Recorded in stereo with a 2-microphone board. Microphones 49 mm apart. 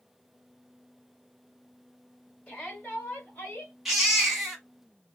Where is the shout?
25° left (ahead or behind), 1.8 m; by 3.7 s 45° left (ahead or behind), 2.0 m.